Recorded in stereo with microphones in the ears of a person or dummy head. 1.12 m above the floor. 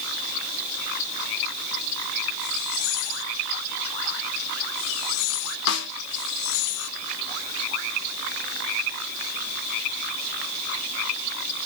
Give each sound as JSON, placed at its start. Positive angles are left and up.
{"t": 5.7, "sound": "a snare drum", "side_deg": 55, "distance_m": 0.9}